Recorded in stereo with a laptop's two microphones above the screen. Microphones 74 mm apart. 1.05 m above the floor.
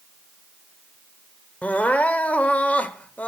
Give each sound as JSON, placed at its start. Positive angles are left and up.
{"t": 1.6, "sound": "crying", "side_deg": 20, "distance_m": 0.7}